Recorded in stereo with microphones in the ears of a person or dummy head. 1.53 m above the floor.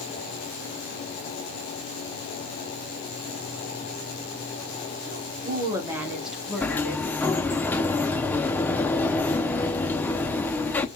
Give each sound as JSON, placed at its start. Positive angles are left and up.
{"t": 5.1, "sound": "a woman speaking", "side_deg": -55, "distance_m": 1.5}
{"t": 6.6, "sound": "a sliding door", "side_deg": 10, "distance_m": 0.5}